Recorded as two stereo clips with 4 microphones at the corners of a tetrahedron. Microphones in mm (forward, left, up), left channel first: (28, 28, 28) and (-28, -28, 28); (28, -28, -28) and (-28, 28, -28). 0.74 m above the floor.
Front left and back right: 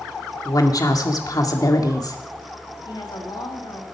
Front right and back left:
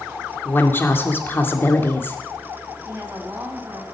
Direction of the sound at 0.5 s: 15° left.